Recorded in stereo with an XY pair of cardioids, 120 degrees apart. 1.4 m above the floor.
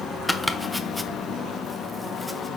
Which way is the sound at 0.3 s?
Straight ahead.